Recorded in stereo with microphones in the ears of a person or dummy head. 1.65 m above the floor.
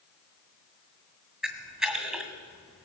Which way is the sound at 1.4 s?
5° right (ahead or behind).